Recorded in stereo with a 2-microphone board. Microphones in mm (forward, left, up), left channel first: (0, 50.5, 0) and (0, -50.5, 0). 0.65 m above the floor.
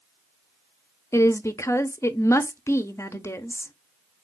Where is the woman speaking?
30° left (ahead or behind), 0.7 m.